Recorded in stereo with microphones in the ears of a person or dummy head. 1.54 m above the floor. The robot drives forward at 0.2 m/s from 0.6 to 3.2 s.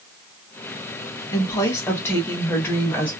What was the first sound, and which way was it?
A woman speaking, 15° left (ahead or behind).